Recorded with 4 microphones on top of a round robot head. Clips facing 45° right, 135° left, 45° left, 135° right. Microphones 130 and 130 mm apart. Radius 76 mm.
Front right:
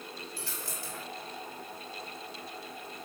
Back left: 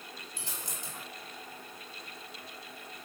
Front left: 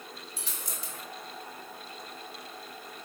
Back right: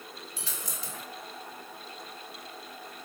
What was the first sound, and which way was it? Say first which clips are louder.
A dropped coin: front right 3 dB, back right 2 dB; 155° right.